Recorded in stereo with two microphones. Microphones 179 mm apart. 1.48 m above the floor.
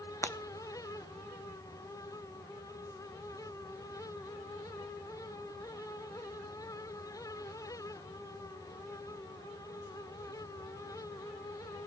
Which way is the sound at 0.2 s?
15° left (ahead or behind).